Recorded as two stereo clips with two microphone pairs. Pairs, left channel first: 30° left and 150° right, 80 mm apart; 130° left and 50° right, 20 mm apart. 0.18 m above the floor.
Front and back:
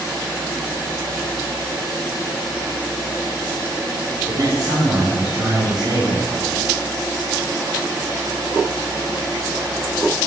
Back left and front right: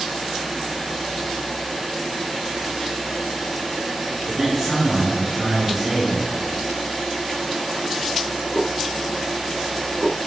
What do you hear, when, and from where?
4.3 s a man speaking: 115° right, 4 m